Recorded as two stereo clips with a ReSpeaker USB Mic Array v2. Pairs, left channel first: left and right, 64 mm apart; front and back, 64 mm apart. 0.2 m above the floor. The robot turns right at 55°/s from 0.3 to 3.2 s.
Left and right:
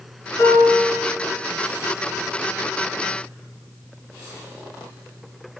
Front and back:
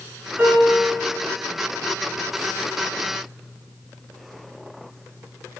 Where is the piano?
110° left, 1.3 m; by 1.1 s 150° left, 1.3 m.